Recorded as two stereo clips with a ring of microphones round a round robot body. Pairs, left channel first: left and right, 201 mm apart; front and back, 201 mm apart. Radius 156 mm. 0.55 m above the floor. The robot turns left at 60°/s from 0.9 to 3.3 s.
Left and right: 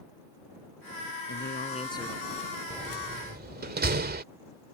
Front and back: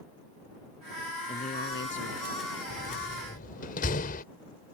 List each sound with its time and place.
1.3 s a man speaking: 60° left; by 2.2 s 5° left
2.7 s a door slam: 15° right; by 4.2 s 55° right